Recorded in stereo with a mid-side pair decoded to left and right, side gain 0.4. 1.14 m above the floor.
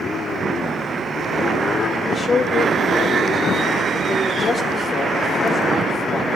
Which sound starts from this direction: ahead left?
A man speaking, at 2.0 s.